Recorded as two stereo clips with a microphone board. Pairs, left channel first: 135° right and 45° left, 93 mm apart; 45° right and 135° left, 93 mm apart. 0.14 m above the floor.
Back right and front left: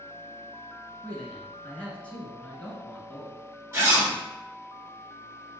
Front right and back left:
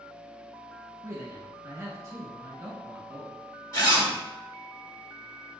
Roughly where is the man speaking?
Behind.